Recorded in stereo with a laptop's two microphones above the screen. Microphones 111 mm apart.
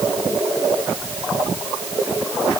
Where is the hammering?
No hammering in this recording.